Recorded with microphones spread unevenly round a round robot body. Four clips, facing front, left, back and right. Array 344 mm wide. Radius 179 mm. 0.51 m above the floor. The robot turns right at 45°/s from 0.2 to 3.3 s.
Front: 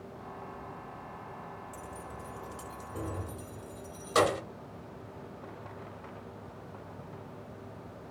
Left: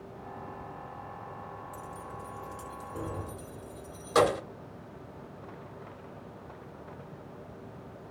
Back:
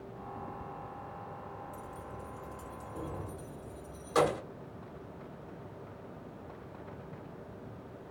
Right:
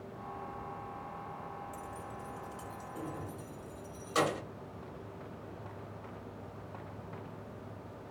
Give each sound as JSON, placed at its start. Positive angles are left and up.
{"t": 1.7, "sound": "keys jangling", "azimuth_deg": -5, "distance_m": 1.4}